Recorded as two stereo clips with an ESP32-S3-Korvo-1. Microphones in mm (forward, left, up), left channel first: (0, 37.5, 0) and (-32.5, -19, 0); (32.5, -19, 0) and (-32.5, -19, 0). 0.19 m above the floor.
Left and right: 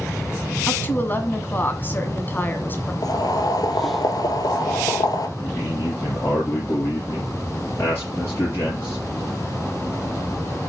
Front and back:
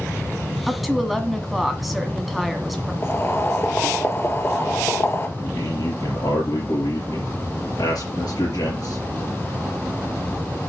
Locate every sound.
0.7 s a woman speaking: 90° left, 1.7 m
3.0 s boiling: 50° left, 1.4 m
5.4 s a man speaking: 10° left, 4.5 m